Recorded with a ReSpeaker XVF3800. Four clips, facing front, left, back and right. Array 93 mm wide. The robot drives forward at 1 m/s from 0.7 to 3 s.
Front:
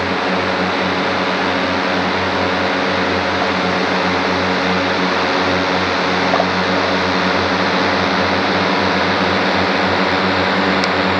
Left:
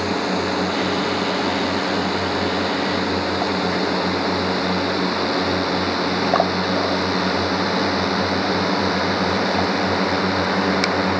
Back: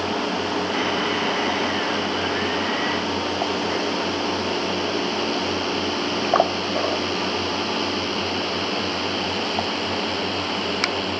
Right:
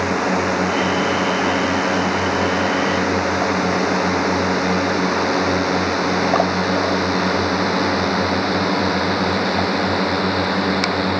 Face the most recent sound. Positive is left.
turn(degrees=5)